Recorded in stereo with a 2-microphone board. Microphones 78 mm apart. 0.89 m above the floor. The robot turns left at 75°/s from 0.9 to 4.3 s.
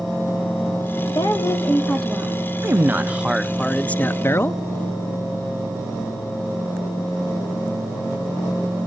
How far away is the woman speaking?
About 2 m.